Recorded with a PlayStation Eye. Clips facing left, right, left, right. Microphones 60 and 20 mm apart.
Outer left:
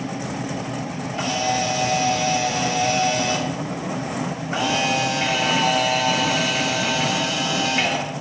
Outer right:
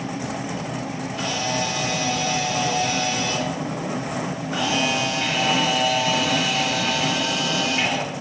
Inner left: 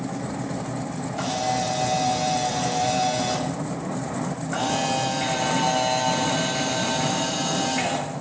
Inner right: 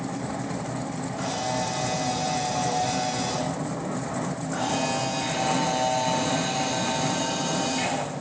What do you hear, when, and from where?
1.1 s a camera shutter: 35° left (ahead or behind), 8 m